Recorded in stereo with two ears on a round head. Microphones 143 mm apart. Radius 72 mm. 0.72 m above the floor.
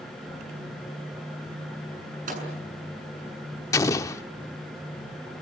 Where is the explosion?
20° left (ahead or behind), 0.7 m.